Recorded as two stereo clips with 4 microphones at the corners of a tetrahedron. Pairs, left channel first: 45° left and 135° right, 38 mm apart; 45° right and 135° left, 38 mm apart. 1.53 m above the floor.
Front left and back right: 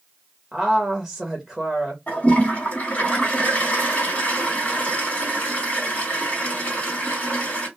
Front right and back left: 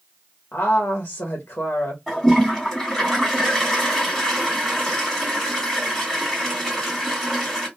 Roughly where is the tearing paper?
No tearing paper in this recording.